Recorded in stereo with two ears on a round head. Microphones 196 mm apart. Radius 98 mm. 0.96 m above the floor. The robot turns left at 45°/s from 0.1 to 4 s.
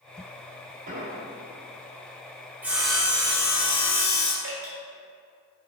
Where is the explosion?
40° right (ahead or behind), 1.0 m; by 1.2 s 25° right (ahead or behind), 1.0 m.